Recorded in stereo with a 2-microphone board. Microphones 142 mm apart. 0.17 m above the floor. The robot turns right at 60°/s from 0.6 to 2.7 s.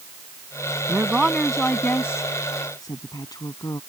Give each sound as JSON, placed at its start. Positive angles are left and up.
{"t": 0.9, "sound": "a woman speaking", "side_deg": -10}